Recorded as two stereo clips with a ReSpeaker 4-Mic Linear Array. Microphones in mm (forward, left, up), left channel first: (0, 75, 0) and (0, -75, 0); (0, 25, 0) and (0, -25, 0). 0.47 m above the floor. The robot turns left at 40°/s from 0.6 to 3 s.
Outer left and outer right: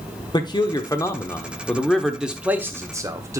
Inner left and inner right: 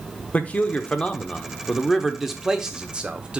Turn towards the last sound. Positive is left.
turn(degrees=-40)